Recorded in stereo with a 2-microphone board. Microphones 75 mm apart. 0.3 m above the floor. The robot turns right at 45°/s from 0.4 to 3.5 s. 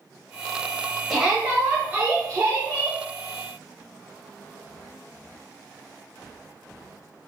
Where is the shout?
175° right, 1.1 m; by 3.0 s 90° right, 1.1 m.